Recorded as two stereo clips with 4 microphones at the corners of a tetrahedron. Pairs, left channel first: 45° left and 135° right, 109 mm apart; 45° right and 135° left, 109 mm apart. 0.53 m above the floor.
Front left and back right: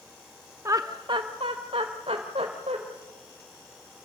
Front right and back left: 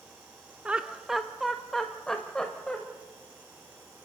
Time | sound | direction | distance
0.7 | laughter | 155° right | 0.7 m